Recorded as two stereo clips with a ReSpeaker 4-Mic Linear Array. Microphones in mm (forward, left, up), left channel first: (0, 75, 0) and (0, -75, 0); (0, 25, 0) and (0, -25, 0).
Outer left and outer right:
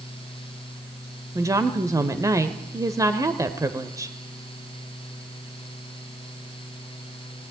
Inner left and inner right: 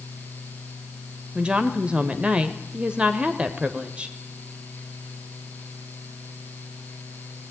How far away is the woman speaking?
About 1.3 m.